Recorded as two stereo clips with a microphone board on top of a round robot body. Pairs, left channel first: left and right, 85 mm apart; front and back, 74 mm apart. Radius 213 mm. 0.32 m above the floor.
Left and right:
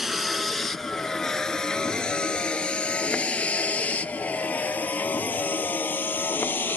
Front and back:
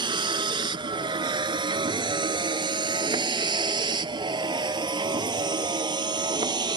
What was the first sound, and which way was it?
A vehicle, 175° right.